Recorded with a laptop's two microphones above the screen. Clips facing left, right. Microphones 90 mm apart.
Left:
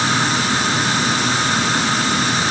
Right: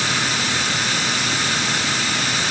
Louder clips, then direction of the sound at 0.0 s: Left 5 dB; 35° left (ahead or behind).